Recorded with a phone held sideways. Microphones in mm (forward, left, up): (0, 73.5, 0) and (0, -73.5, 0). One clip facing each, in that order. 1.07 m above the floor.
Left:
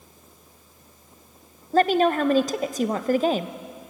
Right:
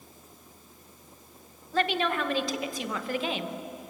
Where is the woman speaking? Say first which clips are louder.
Left 8 dB; 40° left (ahead or behind), 0.8 m.